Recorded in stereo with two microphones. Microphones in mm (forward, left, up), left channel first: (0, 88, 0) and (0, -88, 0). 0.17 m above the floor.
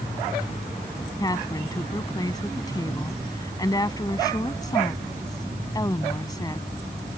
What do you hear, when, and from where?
1.2 s a woman speaking: 20° left (ahead or behind)